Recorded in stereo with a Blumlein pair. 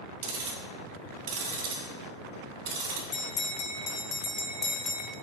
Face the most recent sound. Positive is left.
turn(degrees=20)